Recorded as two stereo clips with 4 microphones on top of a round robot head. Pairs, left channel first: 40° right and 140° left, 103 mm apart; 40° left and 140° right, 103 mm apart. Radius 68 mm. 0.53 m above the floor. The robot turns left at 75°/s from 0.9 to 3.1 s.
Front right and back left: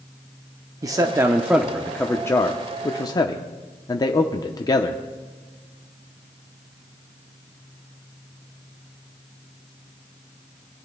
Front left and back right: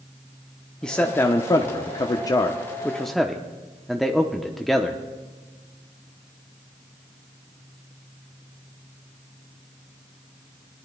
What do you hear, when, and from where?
0.8 s a man speaking: 115° left, 0.7 m; by 5.0 s 50° right, 0.7 m